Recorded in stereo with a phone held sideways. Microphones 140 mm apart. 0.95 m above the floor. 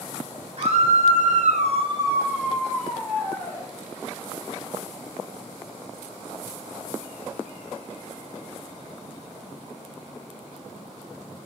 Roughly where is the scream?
Right.